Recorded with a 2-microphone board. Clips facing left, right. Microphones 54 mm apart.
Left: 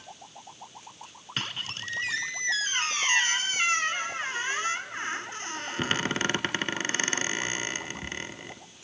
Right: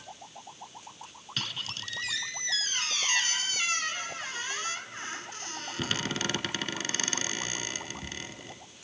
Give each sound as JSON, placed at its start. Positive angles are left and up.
{"t": 1.4, "sound": "a squeak", "side_deg": 35, "distance_m": 0.7}